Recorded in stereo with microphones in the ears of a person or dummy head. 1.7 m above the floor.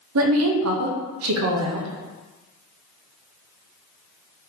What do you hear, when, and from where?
0.1 s a woman speaking: 70° right (ahead or behind), 0.7 m